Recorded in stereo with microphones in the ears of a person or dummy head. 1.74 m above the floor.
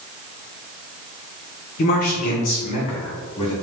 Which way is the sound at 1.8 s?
50° left (ahead or behind).